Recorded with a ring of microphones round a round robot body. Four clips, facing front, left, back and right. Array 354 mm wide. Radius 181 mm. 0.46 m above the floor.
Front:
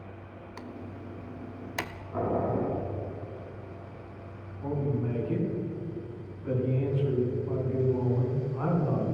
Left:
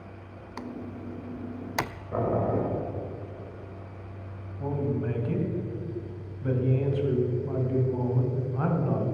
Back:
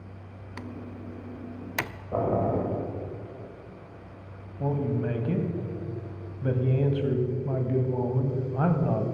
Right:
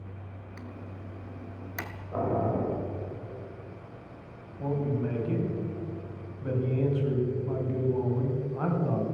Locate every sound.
0.6 s typing on a keyboard: 110° left, 0.5 m
2.1 s boiling: 155° left, 3 m
4.6 s a man speaking: 175° left, 3 m